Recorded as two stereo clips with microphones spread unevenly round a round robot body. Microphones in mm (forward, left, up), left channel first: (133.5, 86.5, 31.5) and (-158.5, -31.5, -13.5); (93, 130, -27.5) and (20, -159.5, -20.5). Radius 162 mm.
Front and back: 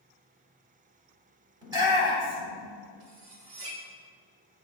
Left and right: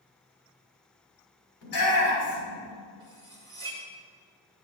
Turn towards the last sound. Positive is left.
turn(degrees=180)